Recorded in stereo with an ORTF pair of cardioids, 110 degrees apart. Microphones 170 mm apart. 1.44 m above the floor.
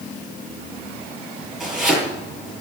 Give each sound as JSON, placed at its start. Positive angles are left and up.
{"t": 1.6, "sound": "chopping", "azimuth_deg": 0, "distance_m": 9.5}